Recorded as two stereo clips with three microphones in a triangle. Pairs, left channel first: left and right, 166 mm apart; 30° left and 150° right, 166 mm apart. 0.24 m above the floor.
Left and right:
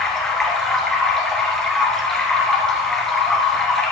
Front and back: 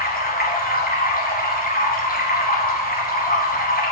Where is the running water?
5° left, 2.5 m.